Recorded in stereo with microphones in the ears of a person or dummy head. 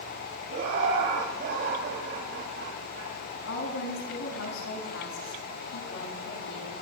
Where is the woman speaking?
80° left, 7 m.